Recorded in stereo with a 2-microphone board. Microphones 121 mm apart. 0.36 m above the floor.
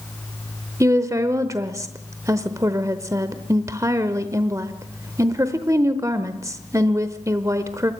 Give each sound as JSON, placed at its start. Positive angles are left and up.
{"t": 0.8, "sound": "a woman speaking", "side_deg": -25, "distance_m": 0.9}